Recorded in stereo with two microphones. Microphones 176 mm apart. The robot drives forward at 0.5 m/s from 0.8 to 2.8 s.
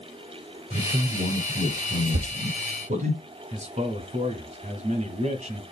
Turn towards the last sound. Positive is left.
turn(degrees=-40)  # may be behind; listen again after turning